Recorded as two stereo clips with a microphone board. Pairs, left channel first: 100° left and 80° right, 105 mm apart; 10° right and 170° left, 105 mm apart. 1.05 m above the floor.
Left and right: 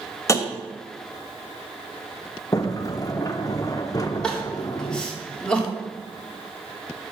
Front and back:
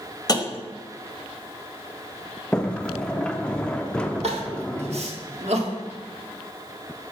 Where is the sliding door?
65° left, 0.6 m.